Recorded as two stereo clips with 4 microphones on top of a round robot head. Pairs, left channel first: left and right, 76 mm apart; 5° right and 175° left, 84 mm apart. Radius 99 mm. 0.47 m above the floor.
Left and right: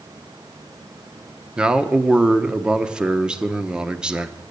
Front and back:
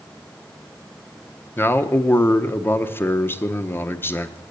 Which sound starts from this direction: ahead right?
A man speaking, at 1.6 s.